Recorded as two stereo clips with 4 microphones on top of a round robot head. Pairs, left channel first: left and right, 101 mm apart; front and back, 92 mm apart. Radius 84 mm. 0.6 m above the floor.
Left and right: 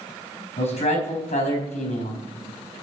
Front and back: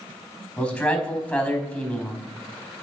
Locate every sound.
0.6 s a man speaking: 80° left, 4.5 m